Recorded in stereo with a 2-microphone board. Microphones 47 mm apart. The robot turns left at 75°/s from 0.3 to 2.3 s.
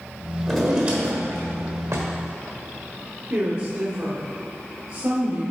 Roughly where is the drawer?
Ahead.